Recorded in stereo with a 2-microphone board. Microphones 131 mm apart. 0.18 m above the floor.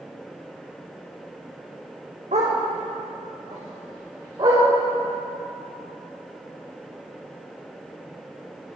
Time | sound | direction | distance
2.3 | a dog barking | 70° right (ahead or behind) | 3 m